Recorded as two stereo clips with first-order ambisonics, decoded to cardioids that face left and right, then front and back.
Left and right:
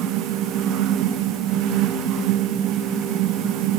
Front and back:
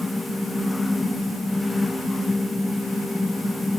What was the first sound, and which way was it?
Only background noise.